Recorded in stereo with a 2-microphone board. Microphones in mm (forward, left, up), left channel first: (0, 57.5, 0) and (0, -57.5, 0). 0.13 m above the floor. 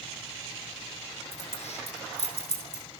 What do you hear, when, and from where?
1.3 s keys jangling: 70° left (ahead or behind), 5 m